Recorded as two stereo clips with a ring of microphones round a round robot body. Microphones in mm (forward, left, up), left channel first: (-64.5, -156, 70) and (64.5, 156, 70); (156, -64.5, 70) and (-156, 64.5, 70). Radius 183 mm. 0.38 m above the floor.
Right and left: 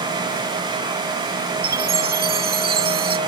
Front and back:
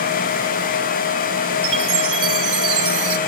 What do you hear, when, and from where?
1.6 s a chime: 130° left